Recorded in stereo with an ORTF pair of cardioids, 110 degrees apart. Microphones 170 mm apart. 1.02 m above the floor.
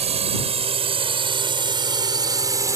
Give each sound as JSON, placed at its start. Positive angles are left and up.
{"t": 0.0, "sound": "a drone", "azimuth_deg": -40}